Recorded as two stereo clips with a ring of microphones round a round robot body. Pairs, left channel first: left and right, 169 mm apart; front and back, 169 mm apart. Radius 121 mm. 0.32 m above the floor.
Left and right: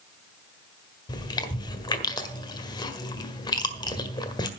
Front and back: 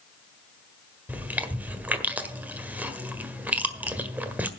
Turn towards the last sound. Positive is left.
turn(degrees=110)